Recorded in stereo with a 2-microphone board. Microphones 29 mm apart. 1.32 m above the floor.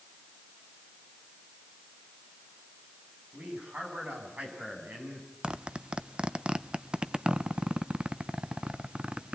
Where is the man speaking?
80° right, 9 m.